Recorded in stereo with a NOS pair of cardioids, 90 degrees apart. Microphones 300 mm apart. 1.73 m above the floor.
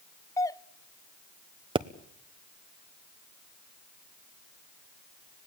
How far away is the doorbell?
About 0.6 m.